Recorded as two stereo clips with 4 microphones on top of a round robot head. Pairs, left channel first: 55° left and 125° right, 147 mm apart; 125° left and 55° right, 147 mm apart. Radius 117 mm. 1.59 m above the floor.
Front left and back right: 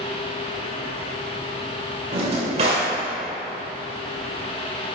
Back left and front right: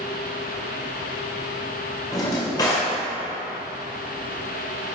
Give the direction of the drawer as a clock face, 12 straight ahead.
6 o'clock.